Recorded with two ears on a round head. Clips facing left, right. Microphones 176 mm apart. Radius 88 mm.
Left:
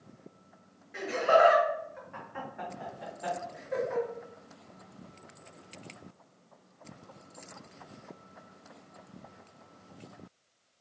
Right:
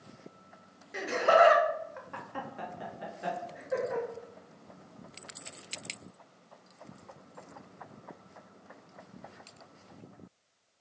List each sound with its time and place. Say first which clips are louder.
0.9 s laughter: even; 50° right (ahead or behind), 0.7 m; by 4.0 s 10° right (ahead or behind), 1.2 m